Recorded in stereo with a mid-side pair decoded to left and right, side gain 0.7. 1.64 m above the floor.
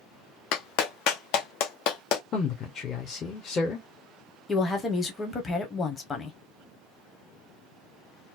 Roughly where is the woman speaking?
Ahead left.